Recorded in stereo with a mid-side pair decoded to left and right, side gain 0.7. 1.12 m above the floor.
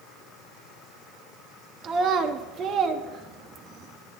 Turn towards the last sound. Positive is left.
turn(degrees=-35)